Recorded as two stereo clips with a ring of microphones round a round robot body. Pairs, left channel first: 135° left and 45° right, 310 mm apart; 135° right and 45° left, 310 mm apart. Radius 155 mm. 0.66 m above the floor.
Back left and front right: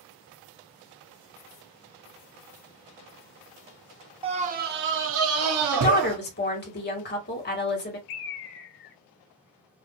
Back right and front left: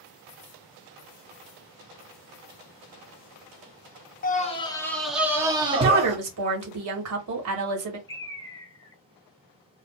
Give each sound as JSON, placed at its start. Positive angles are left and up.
{"t": 4.2, "sound": "a scream", "azimuth_deg": -105, "distance_m": 0.7}
{"t": 5.7, "sound": "a woman speaking", "azimuth_deg": 80, "distance_m": 1.7}
{"t": 8.1, "sound": "a bird", "azimuth_deg": 145, "distance_m": 0.5}